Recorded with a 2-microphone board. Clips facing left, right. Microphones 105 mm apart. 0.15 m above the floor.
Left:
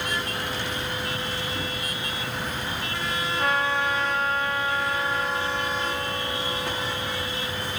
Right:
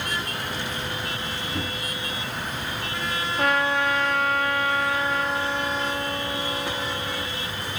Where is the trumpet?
75° right (ahead or behind), 1.8 m.